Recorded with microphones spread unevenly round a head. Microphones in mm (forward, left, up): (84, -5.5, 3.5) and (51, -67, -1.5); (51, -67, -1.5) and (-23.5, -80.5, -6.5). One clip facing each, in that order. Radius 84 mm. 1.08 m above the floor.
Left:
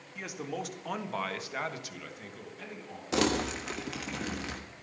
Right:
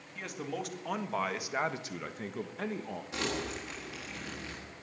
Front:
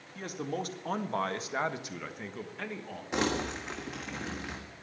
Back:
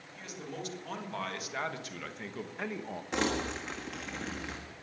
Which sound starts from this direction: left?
Crumpling, at 3.1 s.